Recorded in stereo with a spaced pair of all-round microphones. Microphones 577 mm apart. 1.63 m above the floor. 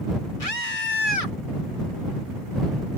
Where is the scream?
75° left (ahead or behind).